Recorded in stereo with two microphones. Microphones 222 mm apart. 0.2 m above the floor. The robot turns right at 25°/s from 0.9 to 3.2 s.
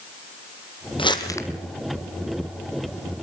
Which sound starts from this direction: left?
Crumpling, at 1.0 s.